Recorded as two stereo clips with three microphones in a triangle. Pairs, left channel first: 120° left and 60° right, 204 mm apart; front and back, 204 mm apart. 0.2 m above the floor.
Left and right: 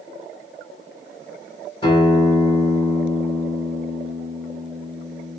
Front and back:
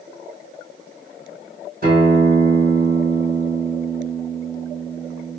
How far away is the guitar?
About 2 m.